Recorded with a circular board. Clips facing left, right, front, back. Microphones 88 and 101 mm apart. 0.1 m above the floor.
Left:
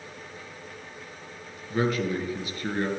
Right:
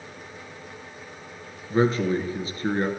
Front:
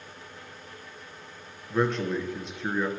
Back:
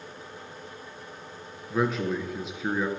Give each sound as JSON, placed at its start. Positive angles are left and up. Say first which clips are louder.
{"t": 1.7, "sound": "a man speaking", "louder": "right 4 dB, even", "azimuth_deg": -100, "distance_m": 1.7}